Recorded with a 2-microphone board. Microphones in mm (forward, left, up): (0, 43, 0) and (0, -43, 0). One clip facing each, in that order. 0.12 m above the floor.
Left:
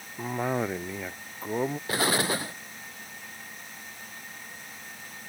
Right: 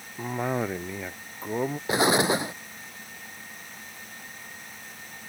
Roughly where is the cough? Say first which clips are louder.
Even; centre.